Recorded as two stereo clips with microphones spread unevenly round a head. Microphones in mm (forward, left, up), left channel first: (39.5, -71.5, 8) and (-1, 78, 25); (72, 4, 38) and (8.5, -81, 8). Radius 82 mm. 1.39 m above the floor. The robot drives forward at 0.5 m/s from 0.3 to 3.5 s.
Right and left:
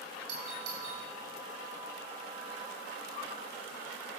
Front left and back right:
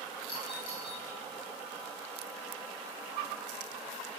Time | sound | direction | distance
0.3 | a doorbell | 110° left | 8.5 m